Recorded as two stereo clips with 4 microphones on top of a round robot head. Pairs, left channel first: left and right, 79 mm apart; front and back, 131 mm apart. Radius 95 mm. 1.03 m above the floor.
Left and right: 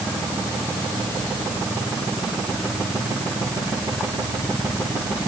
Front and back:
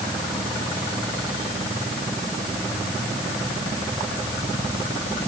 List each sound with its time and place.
Only background noise.